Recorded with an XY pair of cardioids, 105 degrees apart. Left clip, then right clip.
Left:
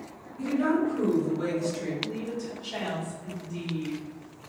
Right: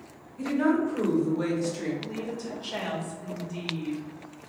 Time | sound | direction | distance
0.4 | a woman speaking | 35° right | 1.6 m
2.0 | a woman speaking | 45° right | 1.3 m